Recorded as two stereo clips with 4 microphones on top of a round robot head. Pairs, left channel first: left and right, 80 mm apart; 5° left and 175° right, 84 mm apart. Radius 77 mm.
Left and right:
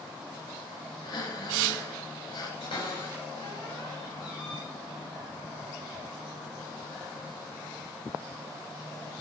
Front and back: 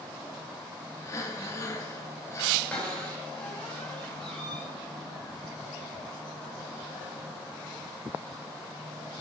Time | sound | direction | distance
1.0 | breathing | 60° left | 2 m
2.6 | a cupboard door | 85° left | 7.5 m